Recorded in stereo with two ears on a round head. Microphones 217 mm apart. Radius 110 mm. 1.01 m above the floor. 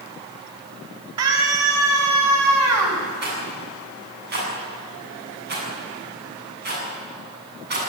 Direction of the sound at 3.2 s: 45° right (ahead or behind).